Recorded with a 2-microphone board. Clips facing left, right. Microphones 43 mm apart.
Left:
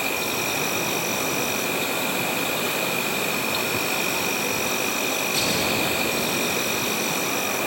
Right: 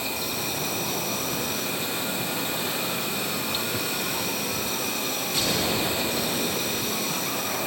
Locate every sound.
0.0 s an insect: 65° left (ahead or behind), 1.5 m